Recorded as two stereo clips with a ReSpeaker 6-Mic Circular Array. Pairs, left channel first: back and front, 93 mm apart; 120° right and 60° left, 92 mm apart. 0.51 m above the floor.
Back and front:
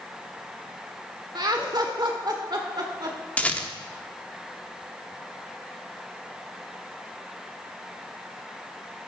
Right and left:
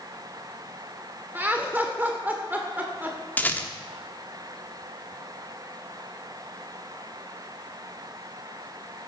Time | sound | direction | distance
1.4 | laughter | 5° right | 1.5 m
3.4 | a rattle | 140° right | 1.2 m